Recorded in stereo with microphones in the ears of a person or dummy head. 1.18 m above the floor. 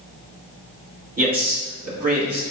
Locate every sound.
1.2 s a man speaking: 45° right (ahead or behind), 1.9 m